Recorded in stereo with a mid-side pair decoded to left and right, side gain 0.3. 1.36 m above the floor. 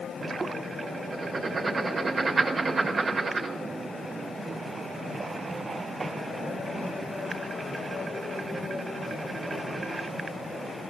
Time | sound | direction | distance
1.1 | writing | 60° right | 5 m